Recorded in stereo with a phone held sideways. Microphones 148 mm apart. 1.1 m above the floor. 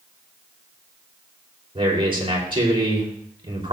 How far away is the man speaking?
About 3 m.